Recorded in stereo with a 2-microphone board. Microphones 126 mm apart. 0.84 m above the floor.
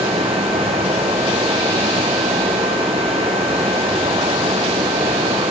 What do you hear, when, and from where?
0.0 s running water: 50° right (ahead or behind), 5.5 m